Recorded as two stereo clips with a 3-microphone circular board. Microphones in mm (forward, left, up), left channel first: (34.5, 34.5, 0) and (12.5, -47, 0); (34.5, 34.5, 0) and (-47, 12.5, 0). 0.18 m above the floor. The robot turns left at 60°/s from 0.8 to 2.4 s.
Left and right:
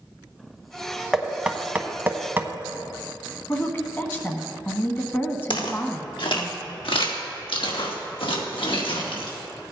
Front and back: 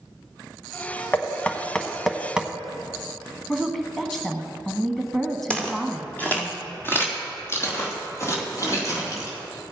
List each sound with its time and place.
1.1 s knocking: 20° right, 0.9 m; by 2.5 s 100° right, 0.9 m
3.5 s a woman speaking: 95° left, 1.4 m
5.5 s footsteps: 90° left, 2.5 m; by 9.4 s 65° left, 4 m